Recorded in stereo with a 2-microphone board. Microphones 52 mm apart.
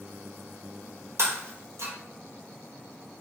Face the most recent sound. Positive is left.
turn(degrees=-70)  # may be behind; listen again after turning